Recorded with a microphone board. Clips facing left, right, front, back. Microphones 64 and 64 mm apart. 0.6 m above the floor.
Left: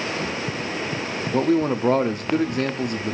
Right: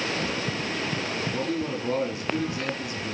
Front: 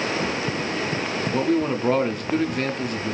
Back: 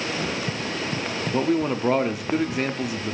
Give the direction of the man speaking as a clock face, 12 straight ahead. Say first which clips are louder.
Left 13 dB, even; 9 o'clock.